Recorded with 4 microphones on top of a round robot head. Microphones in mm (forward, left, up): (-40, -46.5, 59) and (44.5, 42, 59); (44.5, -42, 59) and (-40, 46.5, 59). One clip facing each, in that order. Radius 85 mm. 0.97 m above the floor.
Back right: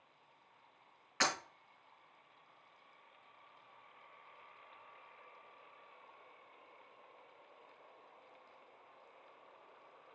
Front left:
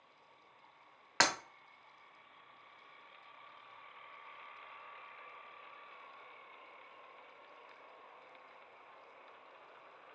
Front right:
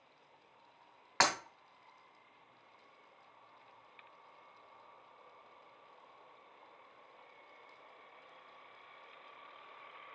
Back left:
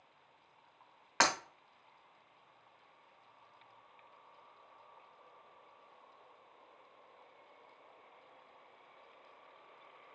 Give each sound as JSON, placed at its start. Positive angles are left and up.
{"t": 1.2, "sound": "breaking glass", "azimuth_deg": 55, "distance_m": 1.1}